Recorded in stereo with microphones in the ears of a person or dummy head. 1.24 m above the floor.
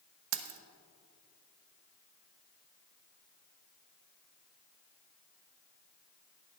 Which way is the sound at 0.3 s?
75° right (ahead or behind).